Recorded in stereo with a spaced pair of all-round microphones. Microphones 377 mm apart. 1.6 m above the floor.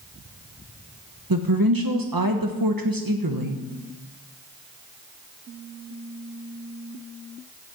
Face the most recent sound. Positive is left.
turn(degrees=-65)  # may be behind; listen again after turning